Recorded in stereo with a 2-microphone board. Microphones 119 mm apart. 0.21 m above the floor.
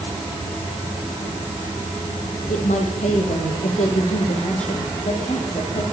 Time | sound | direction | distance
2.5 | a woman speaking | 75° left (ahead or behind) | 7.5 m